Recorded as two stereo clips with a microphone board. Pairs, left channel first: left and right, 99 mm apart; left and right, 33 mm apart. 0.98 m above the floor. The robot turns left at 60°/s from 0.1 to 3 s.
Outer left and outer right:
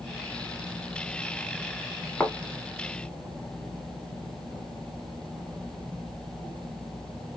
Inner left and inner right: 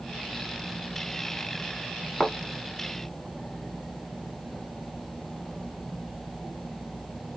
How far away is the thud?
About 1.3 m.